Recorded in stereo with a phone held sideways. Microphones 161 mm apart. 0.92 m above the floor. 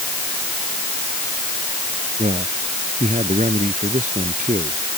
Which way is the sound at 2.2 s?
50° right (ahead or behind).